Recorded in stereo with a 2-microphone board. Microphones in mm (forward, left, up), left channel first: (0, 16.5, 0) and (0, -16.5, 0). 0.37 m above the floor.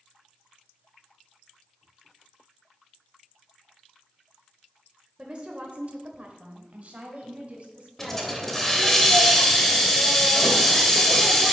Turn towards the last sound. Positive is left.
turn(degrees=10)  # may be behind; listen again after turning